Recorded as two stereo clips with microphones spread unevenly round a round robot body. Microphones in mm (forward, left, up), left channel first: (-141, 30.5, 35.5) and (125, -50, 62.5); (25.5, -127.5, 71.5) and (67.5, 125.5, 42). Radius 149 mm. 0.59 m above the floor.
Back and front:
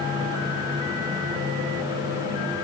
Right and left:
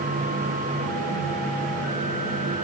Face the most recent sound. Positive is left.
No sound to turn to.